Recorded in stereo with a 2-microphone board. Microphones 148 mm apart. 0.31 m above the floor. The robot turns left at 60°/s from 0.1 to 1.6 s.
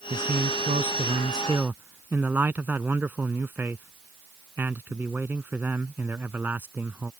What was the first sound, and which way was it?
A man speaking, 75° right.